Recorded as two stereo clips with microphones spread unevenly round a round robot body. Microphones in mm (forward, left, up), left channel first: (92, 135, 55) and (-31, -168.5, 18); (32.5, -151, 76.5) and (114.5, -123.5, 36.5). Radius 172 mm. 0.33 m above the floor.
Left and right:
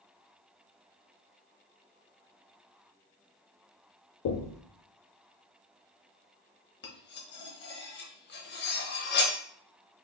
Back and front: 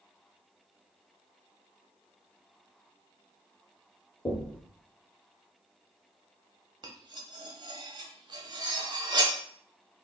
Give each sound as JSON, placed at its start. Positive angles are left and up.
{"t": 4.2, "sound": "knocking", "azimuth_deg": 105, "distance_m": 0.7}
{"t": 6.8, "sound": "cutlery clinking", "azimuth_deg": 5, "distance_m": 1.1}